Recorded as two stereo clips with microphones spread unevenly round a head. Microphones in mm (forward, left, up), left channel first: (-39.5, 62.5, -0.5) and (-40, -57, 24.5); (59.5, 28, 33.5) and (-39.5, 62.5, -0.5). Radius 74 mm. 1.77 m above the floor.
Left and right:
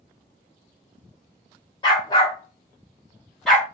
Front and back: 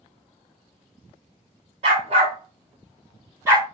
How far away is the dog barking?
About 1.7 m.